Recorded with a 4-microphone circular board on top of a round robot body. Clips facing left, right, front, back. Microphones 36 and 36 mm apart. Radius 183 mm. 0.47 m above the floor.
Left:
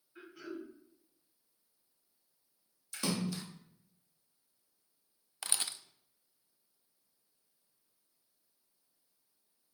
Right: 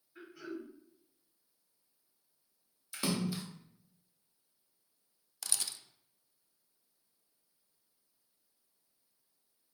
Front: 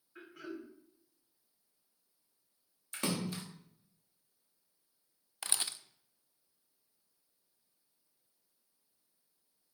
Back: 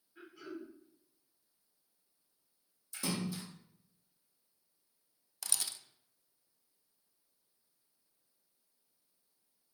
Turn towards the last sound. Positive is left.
turn(degrees=45)